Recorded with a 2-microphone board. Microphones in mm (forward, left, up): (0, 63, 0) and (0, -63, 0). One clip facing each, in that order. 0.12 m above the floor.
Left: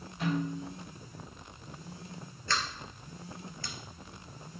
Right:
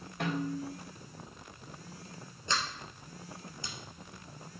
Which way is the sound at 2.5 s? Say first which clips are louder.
Even; 20° right (ahead or behind).